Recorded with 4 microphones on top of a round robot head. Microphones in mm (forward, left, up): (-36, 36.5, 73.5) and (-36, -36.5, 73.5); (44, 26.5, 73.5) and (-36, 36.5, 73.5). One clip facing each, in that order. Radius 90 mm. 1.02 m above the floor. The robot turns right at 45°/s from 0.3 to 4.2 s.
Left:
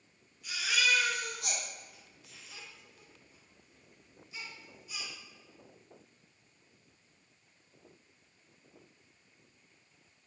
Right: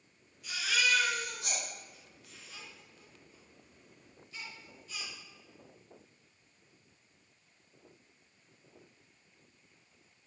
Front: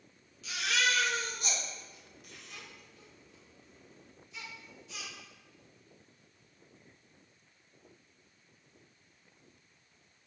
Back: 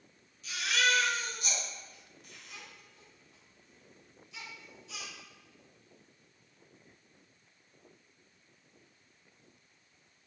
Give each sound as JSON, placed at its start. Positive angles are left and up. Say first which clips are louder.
{"t": 0.4, "sound": "a baby crying", "louder": "even, back 1 dB", "azimuth_deg": -5, "distance_m": 1.0}